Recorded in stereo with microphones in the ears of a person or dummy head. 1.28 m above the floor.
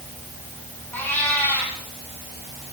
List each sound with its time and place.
0.9 s a cat meowing: 5° left (ahead or behind), 5 m